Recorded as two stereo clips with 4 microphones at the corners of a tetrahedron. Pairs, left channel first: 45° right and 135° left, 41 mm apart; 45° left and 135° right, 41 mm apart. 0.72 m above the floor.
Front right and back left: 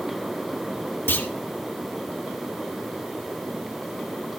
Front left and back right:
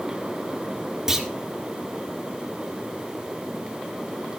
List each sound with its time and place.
1.1 s a clunk: 60° right, 1.8 m